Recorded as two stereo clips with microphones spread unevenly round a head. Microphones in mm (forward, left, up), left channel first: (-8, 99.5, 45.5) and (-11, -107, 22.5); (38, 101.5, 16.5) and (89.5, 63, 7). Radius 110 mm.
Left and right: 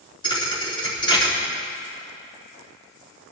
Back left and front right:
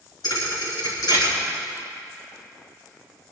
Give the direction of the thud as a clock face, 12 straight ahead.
7 o'clock.